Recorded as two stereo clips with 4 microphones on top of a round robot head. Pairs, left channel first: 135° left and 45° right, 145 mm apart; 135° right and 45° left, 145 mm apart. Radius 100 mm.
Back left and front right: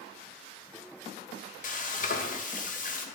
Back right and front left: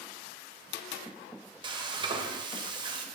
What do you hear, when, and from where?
1.6 s frying: 105° left, 0.7 m